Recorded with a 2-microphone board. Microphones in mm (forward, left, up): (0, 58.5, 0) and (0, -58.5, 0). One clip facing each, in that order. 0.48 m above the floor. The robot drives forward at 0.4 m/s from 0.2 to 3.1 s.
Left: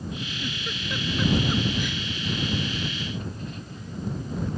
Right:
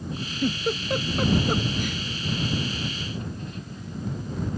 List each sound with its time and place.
0.4 s a giggle: 45° right (ahead or behind)